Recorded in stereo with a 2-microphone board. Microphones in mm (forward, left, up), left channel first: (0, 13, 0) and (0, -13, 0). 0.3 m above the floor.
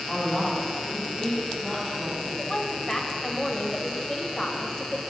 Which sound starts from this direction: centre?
A woman speaking, at 0.1 s.